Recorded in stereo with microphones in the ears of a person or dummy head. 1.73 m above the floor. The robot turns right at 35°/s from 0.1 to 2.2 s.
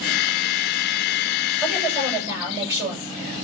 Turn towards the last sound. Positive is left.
turn(degrees=-15)  # may be behind; listen again after turning